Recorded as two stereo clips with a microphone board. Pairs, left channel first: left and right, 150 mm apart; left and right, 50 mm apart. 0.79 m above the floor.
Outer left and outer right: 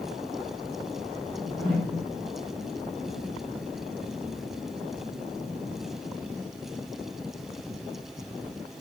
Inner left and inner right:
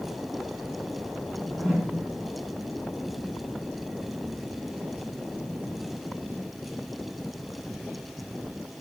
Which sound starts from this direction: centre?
A whoosh, at 1.2 s.